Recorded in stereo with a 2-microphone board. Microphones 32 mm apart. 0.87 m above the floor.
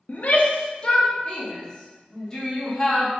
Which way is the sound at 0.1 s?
55° left (ahead or behind).